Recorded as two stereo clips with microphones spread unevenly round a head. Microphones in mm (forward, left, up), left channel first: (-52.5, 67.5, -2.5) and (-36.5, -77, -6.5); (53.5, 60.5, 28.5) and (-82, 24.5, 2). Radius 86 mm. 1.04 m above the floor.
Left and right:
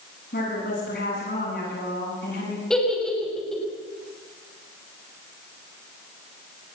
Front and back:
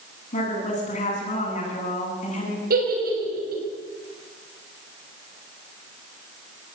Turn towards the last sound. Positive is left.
turn(degrees=-175)